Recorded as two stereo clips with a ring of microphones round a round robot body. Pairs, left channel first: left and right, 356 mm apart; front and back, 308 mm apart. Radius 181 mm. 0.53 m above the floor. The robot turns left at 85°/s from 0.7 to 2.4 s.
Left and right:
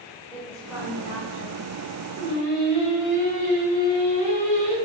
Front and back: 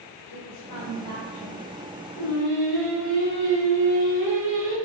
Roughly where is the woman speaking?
Ahead.